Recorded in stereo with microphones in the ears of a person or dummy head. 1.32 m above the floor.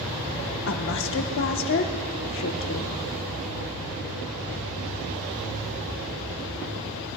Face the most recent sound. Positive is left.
turn(degrees=60)  # may be behind; listen again after turning